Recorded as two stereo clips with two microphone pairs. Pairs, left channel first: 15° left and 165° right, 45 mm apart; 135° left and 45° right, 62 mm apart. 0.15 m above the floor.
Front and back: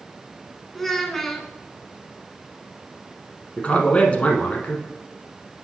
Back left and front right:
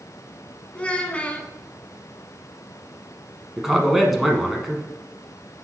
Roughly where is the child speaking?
Left.